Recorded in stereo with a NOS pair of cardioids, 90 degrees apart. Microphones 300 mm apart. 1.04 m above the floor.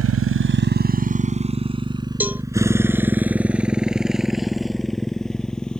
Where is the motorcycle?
55° right; by 5.8 s 5° left.